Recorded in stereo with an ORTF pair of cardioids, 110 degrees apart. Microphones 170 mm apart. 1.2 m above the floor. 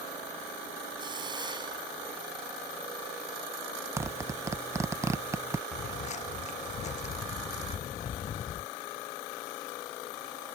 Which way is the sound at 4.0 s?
15° right.